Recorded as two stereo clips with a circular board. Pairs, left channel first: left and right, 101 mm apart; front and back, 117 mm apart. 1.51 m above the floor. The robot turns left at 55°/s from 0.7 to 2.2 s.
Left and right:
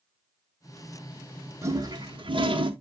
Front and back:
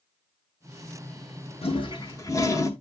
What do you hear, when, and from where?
1.6 s a toilet flushing: 30° right, 1.2 m; by 2.7 s 60° right, 1.2 m